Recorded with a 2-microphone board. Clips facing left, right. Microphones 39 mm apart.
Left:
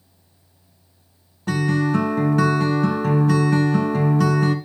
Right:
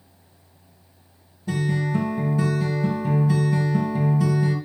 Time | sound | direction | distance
1.5 | a guitar | 75° left (ahead or behind) | 1.8 m